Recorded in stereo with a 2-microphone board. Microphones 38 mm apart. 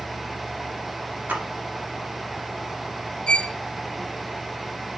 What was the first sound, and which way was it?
A splash, 50° right (ahead or behind).